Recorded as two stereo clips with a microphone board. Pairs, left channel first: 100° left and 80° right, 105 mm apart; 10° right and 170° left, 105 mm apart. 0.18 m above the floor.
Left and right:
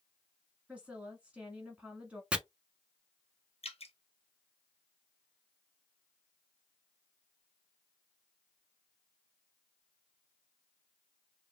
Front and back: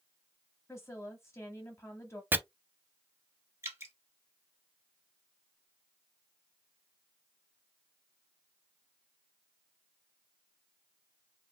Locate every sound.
0.7 s a woman speaking: 15° right, 1.0 m
2.3 s chopping: 145° right, 0.5 m
3.6 s dripping: 105° left, 1.1 m